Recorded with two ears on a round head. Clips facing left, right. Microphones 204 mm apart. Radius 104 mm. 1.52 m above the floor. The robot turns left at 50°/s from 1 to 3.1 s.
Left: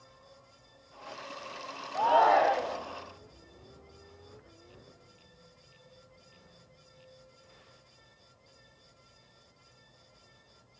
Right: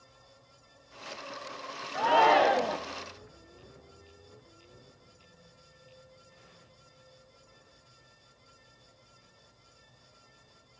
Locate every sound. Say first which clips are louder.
1.9 s a shout: right 1 dB; 20° right, 1.1 m; by 2.8 s 60° right, 1.1 m